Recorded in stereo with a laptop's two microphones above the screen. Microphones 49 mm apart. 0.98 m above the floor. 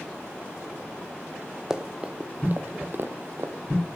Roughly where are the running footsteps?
Centre.